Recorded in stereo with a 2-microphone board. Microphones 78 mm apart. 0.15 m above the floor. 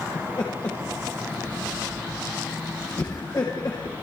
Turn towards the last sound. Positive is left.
turn(degrees=50)  # may be behind; listen again after turning